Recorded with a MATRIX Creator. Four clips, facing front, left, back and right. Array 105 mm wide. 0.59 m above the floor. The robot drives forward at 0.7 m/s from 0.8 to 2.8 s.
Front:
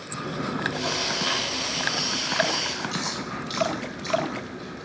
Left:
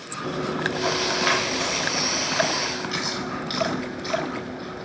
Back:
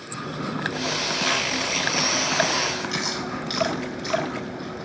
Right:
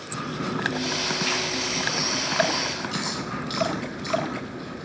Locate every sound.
0.2 s chewing: 85° left, 1.1 m; by 4.8 s 140° left, 1.7 m